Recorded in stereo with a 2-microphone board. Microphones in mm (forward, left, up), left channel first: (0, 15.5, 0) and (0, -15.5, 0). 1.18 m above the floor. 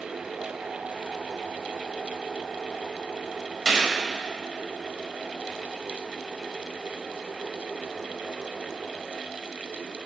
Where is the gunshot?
20° right (ahead or behind), 1.6 m.